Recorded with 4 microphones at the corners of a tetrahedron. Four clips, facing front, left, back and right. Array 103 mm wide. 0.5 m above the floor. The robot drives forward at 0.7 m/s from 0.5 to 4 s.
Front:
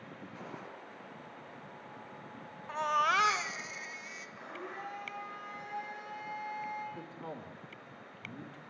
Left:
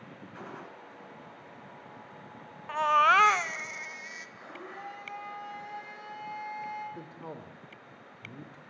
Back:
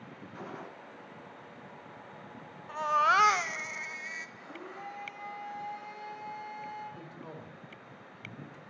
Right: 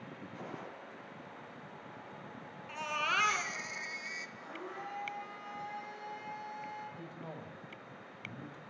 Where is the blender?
50° left, 7.5 m.